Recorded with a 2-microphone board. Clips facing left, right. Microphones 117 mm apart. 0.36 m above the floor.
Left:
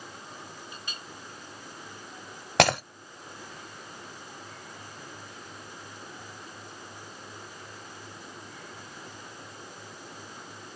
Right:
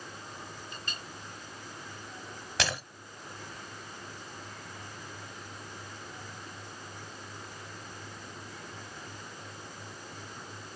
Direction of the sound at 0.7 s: 10° left (ahead or behind).